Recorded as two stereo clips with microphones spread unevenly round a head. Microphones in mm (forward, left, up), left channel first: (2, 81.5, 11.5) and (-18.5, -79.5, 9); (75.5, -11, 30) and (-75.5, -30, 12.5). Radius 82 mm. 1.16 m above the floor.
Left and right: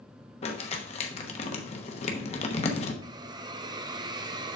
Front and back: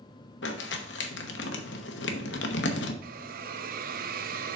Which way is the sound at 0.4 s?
30° left.